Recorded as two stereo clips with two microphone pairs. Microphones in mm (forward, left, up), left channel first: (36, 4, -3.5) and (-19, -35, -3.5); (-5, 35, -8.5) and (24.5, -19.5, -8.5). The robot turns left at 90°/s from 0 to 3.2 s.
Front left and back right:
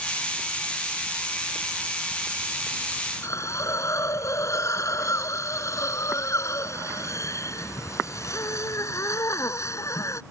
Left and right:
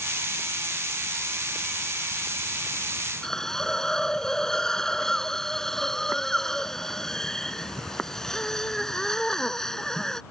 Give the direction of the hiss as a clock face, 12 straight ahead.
11 o'clock.